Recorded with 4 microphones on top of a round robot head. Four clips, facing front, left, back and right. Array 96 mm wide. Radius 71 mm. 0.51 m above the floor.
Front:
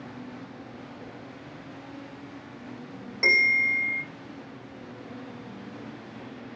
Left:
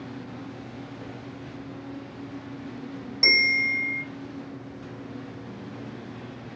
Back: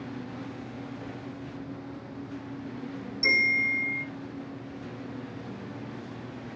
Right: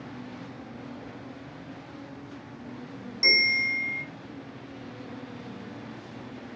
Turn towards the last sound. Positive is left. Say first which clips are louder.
# left 2 dB, front 3 dB
turn(degrees=25)